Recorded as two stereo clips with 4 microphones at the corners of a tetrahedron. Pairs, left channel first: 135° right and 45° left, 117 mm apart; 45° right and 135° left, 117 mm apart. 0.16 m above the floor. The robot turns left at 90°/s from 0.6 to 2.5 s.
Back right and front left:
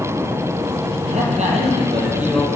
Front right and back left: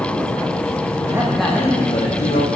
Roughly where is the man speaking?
Left.